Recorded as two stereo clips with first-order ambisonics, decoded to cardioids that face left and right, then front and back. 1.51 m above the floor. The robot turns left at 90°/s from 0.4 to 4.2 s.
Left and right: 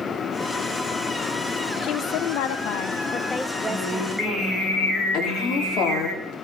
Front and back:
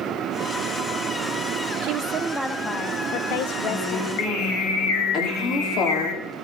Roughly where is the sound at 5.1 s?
Ahead left.